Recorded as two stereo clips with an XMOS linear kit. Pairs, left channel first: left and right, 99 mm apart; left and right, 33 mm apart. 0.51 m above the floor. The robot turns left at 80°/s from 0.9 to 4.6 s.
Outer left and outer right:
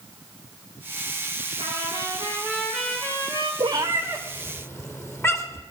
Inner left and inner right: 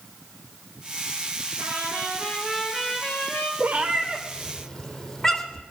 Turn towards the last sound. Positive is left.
turn(degrees=25)  # may be behind; listen again after turning